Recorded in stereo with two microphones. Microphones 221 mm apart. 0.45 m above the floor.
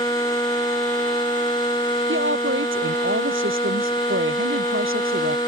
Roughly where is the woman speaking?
Right.